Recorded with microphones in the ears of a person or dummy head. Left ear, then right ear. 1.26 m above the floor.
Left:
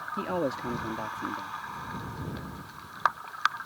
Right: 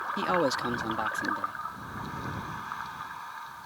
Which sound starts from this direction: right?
A man speaking, at 0.2 s.